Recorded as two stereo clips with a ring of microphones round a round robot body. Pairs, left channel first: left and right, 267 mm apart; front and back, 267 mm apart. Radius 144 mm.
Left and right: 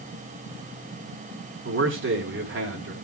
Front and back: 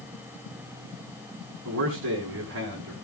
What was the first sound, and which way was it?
A man speaking, 135° right.